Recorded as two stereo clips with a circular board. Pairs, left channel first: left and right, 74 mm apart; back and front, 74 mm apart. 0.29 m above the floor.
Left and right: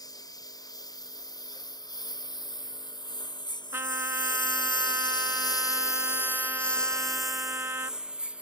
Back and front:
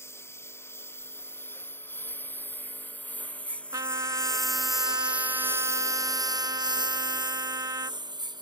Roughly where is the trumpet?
Ahead right.